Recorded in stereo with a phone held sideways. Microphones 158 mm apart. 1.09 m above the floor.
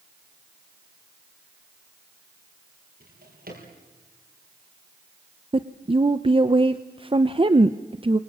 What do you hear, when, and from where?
3.0 s a drawer: 75° right (ahead or behind), 7 m
5.5 s a woman speaking: 35° right (ahead or behind), 0.7 m